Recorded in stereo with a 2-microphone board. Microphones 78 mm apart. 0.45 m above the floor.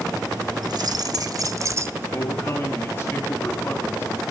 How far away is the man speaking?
About 5.5 m.